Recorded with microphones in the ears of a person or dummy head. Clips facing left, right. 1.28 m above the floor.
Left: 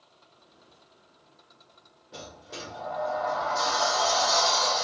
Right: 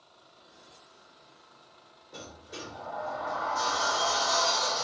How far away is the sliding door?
About 0.7 m.